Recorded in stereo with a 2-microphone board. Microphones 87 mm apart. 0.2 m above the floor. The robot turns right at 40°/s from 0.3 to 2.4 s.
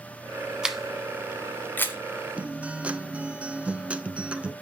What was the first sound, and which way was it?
A camera shutter, 10° right (ahead or behind).